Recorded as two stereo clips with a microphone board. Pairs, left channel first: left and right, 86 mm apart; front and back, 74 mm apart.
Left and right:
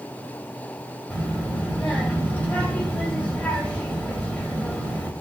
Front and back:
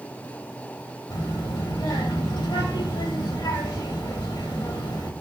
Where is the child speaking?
20° left, 3 m.